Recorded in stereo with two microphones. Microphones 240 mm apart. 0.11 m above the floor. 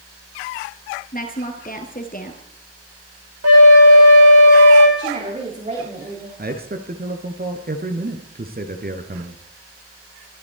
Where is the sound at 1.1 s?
35° left (ahead or behind), 2 m.